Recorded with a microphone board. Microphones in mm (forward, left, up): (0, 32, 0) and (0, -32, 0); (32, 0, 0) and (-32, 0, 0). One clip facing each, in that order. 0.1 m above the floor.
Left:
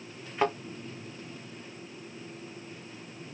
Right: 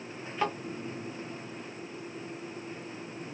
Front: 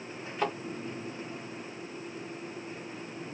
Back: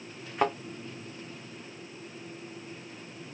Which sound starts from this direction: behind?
A thud, at 0.4 s.